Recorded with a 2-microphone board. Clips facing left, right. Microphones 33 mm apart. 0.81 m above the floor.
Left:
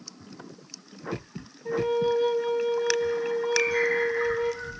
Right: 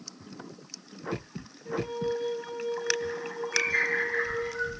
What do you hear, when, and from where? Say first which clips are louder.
1.6 s a flute: left 6 dB; 50° left (ahead or behind), 0.7 m
3.5 s a bird: even; 75° right (ahead or behind), 4 m